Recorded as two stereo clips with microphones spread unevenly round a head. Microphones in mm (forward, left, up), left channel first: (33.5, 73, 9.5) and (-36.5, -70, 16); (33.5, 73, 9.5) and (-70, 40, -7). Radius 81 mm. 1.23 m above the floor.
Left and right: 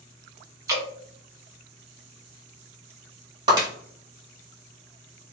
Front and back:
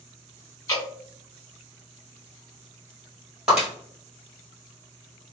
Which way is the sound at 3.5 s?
70° right.